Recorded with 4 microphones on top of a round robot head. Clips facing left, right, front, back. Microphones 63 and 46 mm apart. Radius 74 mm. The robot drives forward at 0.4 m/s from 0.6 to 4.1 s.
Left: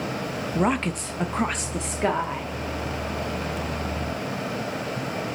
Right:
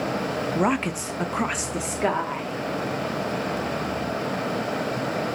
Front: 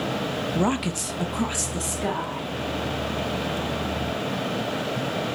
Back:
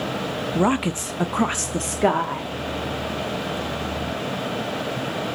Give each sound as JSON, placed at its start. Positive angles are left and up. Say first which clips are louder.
{"t": 0.6, "sound": "a woman speaking", "louder": "left 1 dB, back 5 dB", "azimuth_deg": -155, "distance_m": 0.6}